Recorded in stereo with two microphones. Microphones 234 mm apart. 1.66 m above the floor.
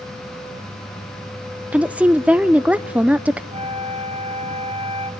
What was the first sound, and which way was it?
A woman speaking, 5° right (ahead or behind).